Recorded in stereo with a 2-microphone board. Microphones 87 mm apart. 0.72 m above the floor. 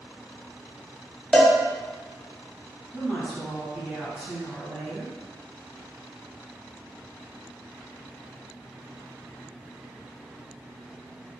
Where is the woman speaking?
5° right (ahead or behind), 1.7 m.